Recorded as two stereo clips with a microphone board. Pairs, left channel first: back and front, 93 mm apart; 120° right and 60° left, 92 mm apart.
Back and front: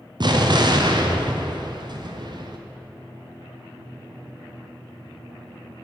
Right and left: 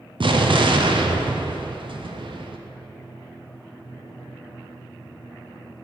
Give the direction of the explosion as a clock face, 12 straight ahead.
11 o'clock.